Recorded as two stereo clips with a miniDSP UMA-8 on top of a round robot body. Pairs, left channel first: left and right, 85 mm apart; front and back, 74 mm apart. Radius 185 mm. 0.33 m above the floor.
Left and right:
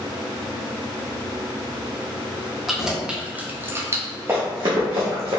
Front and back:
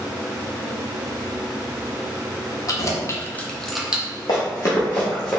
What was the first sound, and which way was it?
Keys jangling, 5° right.